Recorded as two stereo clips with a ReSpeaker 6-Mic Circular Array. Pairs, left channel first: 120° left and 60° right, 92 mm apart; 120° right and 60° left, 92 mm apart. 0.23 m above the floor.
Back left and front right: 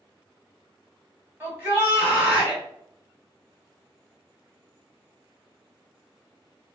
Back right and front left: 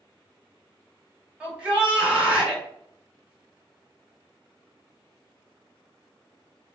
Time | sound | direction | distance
1.4 | a shout | 10° right | 1.6 m